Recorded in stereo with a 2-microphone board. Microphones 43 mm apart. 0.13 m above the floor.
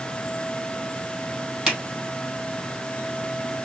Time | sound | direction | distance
1.7 | a finger snap | 10° right (ahead or behind) | 3.5 m